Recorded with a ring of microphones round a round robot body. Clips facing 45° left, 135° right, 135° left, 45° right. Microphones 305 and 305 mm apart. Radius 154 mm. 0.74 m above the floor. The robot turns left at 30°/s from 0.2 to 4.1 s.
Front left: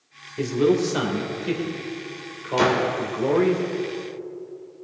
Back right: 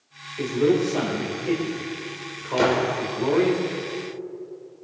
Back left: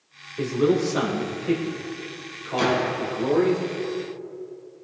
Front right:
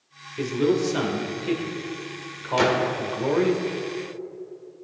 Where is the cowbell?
I don't hear a cowbell.